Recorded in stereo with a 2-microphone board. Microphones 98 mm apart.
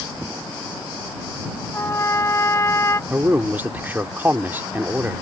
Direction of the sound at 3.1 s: 20° right (ahead or behind).